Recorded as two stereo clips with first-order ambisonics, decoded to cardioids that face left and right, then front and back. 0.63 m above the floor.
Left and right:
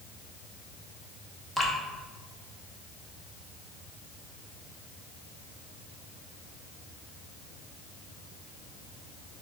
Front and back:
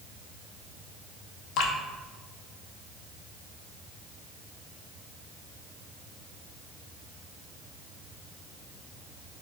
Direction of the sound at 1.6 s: Straight ahead.